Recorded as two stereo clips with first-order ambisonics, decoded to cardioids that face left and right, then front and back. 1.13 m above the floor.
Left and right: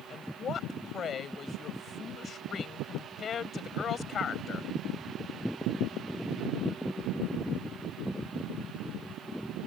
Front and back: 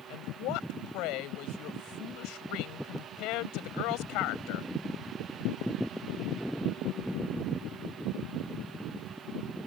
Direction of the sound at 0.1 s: 25° left.